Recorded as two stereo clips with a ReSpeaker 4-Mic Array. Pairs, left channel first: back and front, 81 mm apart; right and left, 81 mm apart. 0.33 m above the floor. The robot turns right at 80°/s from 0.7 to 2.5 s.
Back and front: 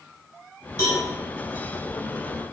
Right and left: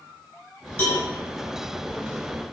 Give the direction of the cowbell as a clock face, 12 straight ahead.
5 o'clock.